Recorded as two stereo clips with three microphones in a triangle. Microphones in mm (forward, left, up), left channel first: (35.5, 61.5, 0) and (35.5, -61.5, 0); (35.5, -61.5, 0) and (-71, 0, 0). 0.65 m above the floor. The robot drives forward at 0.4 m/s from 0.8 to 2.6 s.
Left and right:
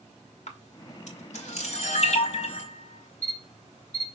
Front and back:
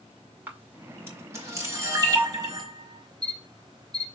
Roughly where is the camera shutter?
Left.